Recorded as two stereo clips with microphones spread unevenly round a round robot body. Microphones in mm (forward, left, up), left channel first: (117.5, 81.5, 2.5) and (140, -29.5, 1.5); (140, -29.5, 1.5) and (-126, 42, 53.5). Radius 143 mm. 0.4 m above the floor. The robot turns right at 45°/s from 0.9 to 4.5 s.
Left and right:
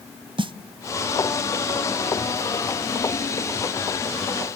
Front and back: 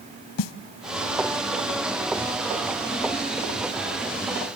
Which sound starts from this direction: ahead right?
A snare drum, at 0.4 s.